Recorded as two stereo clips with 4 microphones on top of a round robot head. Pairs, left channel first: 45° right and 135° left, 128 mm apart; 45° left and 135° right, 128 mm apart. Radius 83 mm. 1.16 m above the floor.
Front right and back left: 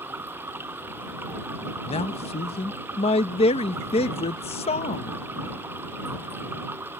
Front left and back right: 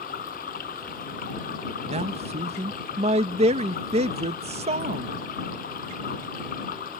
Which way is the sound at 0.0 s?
55° left.